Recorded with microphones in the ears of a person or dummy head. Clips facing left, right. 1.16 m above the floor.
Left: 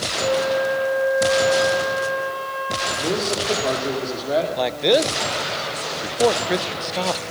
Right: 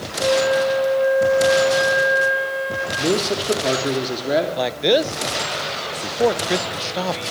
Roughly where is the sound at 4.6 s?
Centre.